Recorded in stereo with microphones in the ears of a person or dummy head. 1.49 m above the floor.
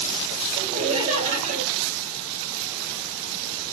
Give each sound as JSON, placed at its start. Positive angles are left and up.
{"t": 0.6, "sound": "laughter", "side_deg": -40, "distance_m": 1.0}